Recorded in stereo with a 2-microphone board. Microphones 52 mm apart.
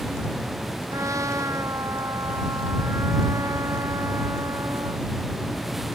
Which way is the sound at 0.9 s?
75° right (ahead or behind).